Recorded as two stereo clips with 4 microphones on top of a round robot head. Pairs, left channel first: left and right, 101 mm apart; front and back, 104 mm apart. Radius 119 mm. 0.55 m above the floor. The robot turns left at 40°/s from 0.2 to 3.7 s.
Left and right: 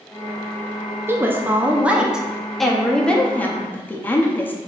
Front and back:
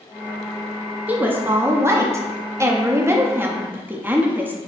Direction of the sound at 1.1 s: 125° right.